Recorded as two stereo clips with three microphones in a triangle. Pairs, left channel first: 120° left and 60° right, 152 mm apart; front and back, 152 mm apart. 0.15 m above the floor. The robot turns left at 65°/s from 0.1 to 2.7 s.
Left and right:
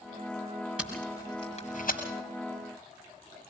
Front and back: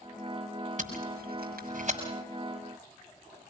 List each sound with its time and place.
0.8 s tape being pulled: 140° right, 6 m; by 2.0 s 140° left, 6 m